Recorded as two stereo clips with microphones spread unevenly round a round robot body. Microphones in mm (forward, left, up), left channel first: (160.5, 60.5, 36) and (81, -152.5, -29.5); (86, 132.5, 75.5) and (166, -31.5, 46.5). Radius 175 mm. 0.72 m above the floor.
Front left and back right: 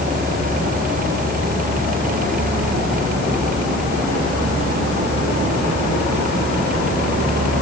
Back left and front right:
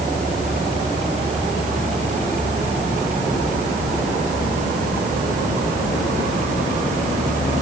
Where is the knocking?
I don't hear knocking.